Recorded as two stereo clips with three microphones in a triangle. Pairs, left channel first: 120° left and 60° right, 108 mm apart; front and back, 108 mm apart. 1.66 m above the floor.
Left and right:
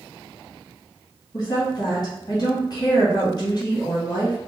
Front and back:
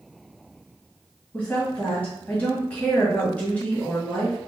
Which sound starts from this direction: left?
A woman speaking, at 1.3 s.